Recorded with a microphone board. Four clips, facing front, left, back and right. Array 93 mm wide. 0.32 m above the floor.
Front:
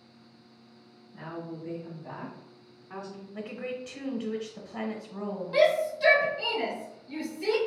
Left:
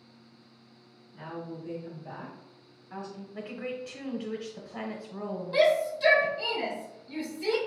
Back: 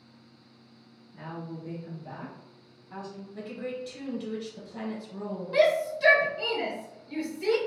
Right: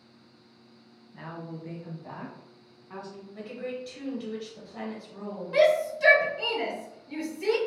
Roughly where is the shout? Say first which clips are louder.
Right 2 dB, even; right.